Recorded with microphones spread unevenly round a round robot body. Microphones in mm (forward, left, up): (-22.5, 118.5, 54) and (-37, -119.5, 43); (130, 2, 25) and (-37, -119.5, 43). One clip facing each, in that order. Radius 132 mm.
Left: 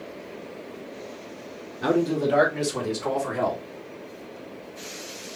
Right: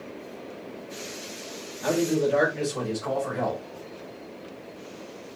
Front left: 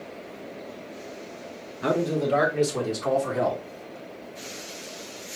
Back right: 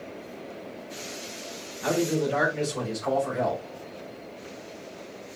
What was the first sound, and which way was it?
A man speaking, 70° left.